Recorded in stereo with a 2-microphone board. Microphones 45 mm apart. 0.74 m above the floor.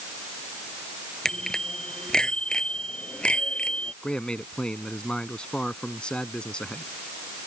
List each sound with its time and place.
1.2 s a bicycle bell: 10° left (ahead or behind); by 3.9 s 20° left (ahead or behind)
4.0 s a man speaking: 25° left (ahead or behind)